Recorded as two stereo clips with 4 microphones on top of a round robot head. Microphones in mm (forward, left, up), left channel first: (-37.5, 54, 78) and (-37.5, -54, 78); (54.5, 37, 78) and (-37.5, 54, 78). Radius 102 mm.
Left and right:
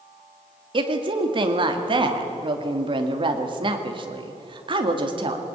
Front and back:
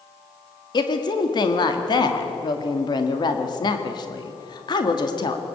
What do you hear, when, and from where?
0.7 s a woman speaking: 50° right, 2 m